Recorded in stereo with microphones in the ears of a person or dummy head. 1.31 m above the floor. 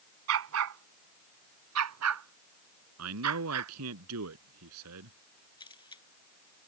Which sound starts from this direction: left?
A camera shutter, at 5.6 s.